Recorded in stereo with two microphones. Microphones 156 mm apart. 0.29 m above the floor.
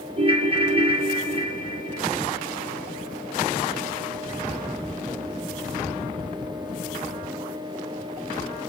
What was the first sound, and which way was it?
A ringtone, 35° right (ahead or behind).